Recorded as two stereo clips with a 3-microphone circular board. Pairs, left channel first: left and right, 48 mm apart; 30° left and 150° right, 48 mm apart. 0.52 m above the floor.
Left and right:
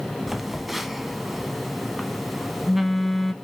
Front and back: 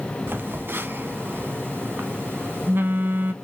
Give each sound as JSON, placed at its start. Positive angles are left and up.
{"t": 0.3, "sound": "a phone buzzing", "azimuth_deg": -175, "distance_m": 0.6}